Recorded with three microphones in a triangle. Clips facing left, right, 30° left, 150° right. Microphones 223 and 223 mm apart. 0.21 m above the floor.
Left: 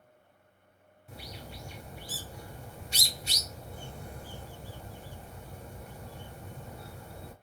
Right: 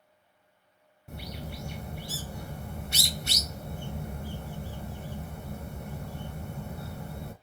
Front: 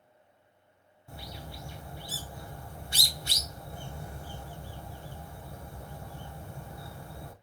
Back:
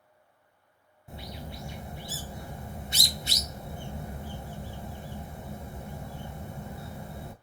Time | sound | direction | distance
1.1 | a bird | 80° right | 0.7 m